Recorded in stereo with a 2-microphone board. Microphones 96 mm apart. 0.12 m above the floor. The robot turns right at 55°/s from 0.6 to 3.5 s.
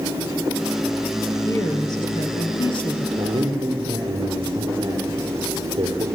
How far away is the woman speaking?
About 2.5 m.